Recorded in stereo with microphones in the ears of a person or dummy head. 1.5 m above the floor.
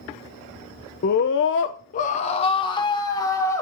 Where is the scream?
45° left (ahead or behind), 0.7 m; by 3.6 s 15° left (ahead or behind), 2 m.